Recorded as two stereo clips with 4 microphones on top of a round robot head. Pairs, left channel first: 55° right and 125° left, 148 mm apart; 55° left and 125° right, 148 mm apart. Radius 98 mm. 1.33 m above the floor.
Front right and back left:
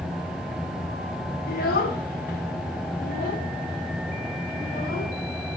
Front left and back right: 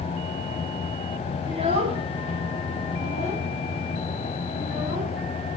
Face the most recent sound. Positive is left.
turn(degrees=-80)